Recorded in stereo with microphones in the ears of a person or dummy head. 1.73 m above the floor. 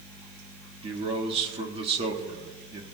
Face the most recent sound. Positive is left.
turn(degrees=-30)  # may be behind; listen again after turning